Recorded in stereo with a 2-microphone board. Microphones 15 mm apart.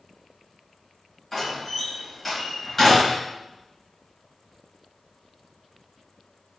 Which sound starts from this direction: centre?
A door slam, at 1.3 s.